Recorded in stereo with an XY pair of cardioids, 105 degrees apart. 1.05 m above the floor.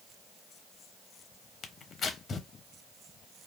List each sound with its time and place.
1.6 s tearing paper: 45° left, 0.7 m